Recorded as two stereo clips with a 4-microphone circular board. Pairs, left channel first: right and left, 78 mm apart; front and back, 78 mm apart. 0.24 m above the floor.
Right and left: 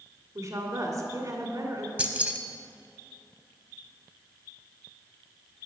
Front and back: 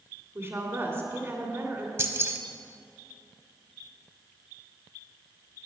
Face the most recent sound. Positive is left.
turn(degrees=150)